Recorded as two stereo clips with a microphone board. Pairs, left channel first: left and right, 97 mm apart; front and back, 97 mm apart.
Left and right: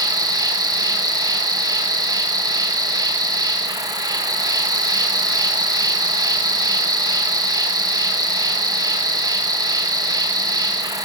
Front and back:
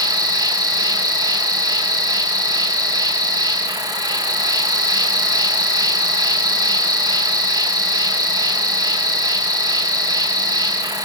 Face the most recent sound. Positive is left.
turn(degrees=-140)